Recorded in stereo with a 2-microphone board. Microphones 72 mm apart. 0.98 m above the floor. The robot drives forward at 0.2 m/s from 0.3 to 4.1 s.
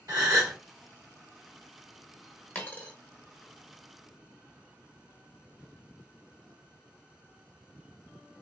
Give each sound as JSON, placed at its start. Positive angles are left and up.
{"t": 0.1, "sound": "a gasp", "side_deg": -55, "distance_m": 1.6}
{"t": 2.5, "sound": "a dropped coin", "side_deg": 25, "distance_m": 0.8}